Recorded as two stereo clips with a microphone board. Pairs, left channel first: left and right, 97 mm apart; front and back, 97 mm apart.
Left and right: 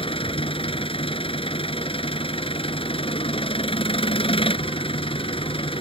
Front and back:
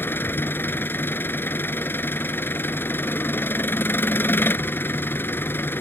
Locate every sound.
0.0 s an engine running: 70° left